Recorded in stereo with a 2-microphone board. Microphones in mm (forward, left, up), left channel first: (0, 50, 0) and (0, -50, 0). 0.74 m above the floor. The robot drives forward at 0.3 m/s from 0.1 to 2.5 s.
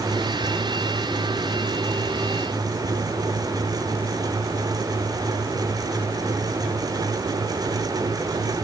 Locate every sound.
Only background noise.